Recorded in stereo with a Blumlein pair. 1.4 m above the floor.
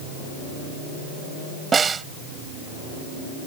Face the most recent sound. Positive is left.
turn(degrees=-20)